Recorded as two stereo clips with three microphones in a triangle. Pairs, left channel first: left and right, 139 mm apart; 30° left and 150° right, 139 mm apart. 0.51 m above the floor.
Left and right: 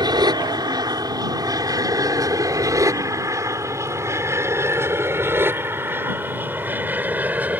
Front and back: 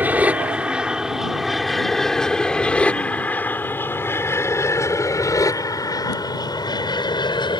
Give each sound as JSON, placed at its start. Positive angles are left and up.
{"t": 0.0, "sound": "an aircraft", "azimuth_deg": -85}